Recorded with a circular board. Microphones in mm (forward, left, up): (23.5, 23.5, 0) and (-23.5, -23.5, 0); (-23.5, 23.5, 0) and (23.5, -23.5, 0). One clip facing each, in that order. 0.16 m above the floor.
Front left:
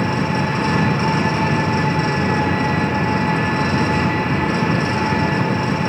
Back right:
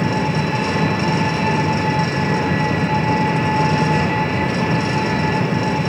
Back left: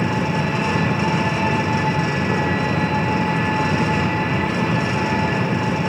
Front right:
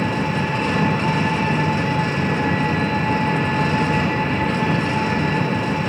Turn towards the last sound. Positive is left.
turn(degrees=55)